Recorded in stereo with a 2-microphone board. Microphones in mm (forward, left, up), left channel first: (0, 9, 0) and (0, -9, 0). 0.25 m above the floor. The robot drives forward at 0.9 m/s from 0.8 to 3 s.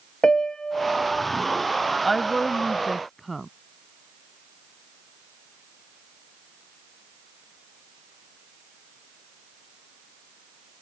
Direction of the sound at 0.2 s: 65° left (ahead or behind).